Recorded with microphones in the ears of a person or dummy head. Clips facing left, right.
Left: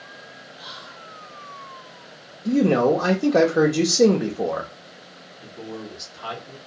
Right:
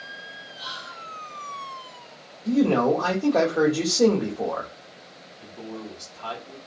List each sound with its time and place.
0.6 s whispering: 50° right (ahead or behind), 1.4 m
2.5 s a man speaking: 35° left (ahead or behind), 0.6 m
5.4 s a man speaking: 15° left (ahead or behind), 1.3 m